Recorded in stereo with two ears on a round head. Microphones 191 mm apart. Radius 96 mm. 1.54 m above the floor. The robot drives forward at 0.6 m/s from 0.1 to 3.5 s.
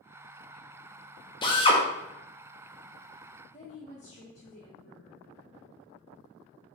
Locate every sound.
1.4 s a drill: 20° left (ahead or behind), 0.8 m; by 1.8 s 25° left (ahead or behind), 0.6 m
3.5 s a woman speaking: 35° left (ahead or behind), 0.8 m